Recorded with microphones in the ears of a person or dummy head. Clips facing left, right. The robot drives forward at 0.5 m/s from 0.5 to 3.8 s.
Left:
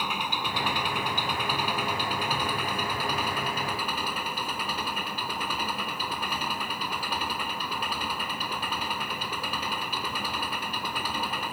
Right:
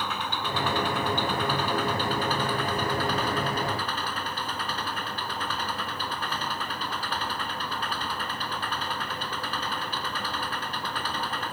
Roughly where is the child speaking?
No child speaking in this recording.